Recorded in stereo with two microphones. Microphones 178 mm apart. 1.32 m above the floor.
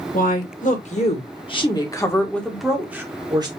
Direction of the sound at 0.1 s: 55° left (ahead or behind).